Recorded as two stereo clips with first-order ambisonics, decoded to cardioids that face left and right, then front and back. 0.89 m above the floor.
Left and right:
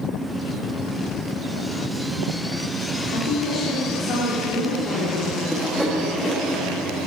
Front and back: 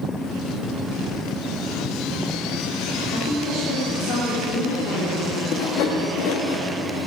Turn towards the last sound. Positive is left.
turn(degrees=5)